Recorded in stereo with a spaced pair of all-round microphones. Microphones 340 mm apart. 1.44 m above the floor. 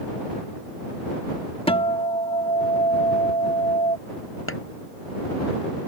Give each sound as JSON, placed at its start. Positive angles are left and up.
{"t": 1.7, "sound": "a guitar", "side_deg": 15}
{"t": 4.5, "sound": "scissors", "side_deg": 40}